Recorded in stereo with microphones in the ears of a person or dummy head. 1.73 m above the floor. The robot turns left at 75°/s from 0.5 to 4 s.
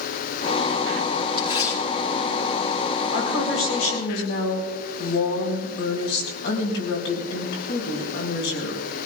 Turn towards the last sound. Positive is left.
turn(degrees=70)